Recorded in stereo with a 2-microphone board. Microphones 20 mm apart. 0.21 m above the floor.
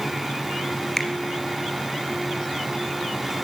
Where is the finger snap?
15° left (ahead or behind), 2.5 m.